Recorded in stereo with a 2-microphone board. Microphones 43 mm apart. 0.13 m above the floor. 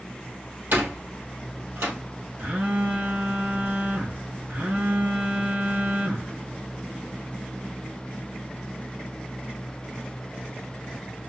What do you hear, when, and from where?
0.7 s a door slam: 60° right (ahead or behind), 3 m
2.4 s a phone buzzing: 45° right (ahead or behind), 2.5 m